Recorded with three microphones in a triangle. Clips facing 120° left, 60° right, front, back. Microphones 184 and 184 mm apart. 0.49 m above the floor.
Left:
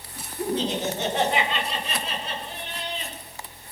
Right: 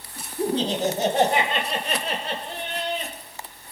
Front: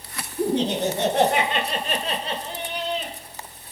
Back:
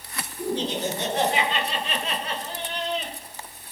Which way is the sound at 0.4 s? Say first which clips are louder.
Right 3 dB, front 5 dB; straight ahead.